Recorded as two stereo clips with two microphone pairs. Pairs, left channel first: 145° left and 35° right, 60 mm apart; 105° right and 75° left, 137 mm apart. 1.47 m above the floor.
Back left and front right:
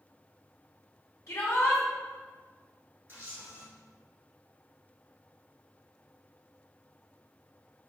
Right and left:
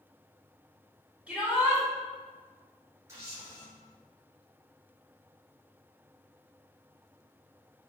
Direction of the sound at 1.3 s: 160° left.